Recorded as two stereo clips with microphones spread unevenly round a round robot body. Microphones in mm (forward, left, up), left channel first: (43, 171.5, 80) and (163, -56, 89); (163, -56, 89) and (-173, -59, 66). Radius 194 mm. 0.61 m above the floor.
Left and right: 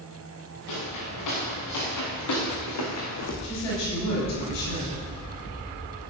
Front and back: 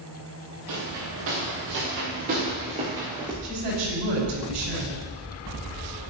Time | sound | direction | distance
0.7 | footsteps | 130° left | 5 m
3.4 | a woman speaking | 150° left | 5 m